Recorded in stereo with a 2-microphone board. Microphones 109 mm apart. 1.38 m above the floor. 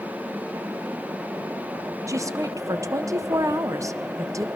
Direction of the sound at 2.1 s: 30° right (ahead or behind).